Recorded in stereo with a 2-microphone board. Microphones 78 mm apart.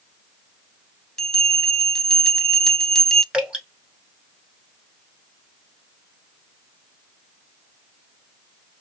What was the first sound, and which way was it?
A bell, 5° left (ahead or behind).